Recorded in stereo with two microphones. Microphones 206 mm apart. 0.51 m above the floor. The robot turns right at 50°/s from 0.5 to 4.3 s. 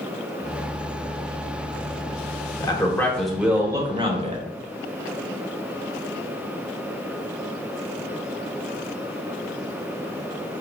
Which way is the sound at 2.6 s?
145° left.